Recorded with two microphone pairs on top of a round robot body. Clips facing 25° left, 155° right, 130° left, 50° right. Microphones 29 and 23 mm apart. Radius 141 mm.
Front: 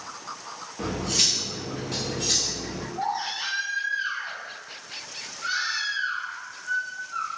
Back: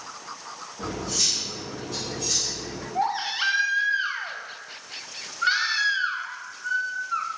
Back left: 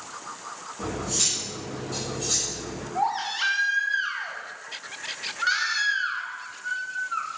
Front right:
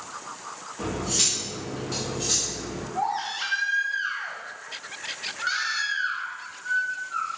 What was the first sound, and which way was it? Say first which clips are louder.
Cutlery clinking: front 3 dB, front right 2 dB; 5° right.